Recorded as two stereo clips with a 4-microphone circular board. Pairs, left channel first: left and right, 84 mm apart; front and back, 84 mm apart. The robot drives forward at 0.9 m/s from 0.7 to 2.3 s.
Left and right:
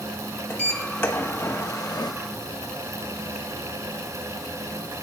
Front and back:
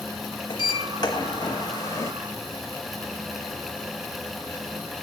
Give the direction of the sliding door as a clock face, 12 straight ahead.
11 o'clock.